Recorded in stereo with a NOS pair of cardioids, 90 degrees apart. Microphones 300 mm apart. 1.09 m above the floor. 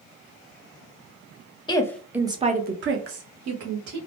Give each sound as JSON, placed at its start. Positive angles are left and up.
{"t": 1.7, "sound": "a woman speaking", "azimuth_deg": 15, "distance_m": 0.7}